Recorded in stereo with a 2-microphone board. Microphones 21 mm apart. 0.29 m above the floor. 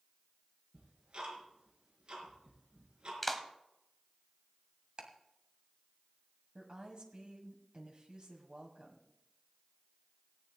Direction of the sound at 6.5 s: 45° right (ahead or behind).